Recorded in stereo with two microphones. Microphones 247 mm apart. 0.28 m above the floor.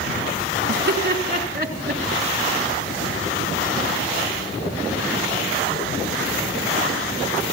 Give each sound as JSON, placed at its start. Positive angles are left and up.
{"t": 0.7, "sound": "laughter", "side_deg": -45, "distance_m": 3.0}